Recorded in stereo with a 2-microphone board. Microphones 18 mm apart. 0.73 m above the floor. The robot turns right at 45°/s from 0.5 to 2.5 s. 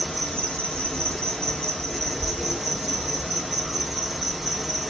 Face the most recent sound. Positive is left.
turn(degrees=-175)